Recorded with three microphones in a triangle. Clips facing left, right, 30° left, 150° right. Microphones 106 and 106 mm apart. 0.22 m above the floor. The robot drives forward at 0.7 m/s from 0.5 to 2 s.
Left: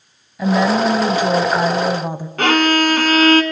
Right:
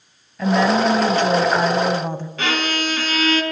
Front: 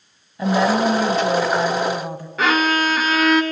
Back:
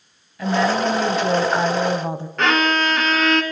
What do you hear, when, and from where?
0.4 s a woman speaking: 25° left, 1.0 m; by 2.3 s 165° left, 1.2 m
2.4 s a violin: 115° left, 1.4 m